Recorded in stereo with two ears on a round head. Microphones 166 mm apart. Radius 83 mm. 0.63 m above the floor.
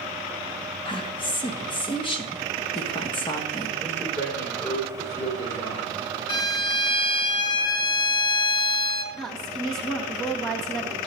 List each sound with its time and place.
0.8 s a woman speaking: 25° left (ahead or behind), 1.0 m
3.8 s a man speaking: 15° left (ahead or behind), 3.5 m
6.3 s a violin: 25° left (ahead or behind), 0.7 m
9.1 s a woman speaking: 5° left (ahead or behind), 1.4 m